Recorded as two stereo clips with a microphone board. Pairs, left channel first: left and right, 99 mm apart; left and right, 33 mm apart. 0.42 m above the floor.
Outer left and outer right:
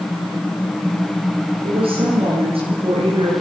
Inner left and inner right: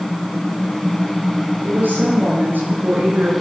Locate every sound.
1.6 s a woman speaking: 85° right, 9.5 m; by 3.3 s 80° right, 7.5 m